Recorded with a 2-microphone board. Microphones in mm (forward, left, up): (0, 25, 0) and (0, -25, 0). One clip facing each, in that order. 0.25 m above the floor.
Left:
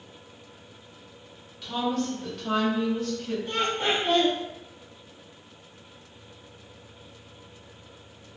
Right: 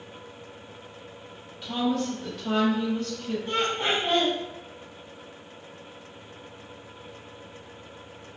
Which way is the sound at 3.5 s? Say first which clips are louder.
Even; 20° right (ahead or behind).